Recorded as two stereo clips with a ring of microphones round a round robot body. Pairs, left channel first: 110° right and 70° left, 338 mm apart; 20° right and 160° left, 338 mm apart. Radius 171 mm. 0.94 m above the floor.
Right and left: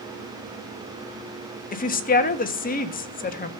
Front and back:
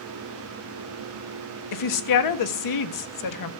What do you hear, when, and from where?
1.7 s a woman speaking: 50° right, 1.6 m